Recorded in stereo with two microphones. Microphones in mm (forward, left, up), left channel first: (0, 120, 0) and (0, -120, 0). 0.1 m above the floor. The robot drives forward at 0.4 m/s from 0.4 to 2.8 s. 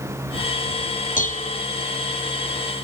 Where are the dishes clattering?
35° left (ahead or behind); by 1.6 s 30° left (ahead or behind).